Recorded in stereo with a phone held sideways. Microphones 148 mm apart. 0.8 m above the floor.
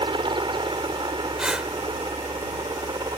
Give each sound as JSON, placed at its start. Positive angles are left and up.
{"t": 0.0, "sound": "a helicopter", "side_deg": -35}
{"t": 1.4, "sound": "breathing", "side_deg": -5}